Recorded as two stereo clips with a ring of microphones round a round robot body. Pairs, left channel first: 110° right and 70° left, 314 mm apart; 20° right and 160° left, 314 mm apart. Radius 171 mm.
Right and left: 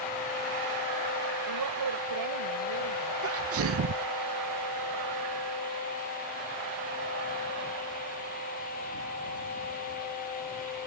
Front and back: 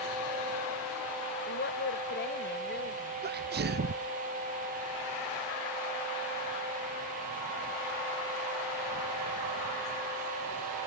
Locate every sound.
1.5 s a woman speaking: 35° left; by 3.1 s 40° left
3.2 s a sneeze: 105° left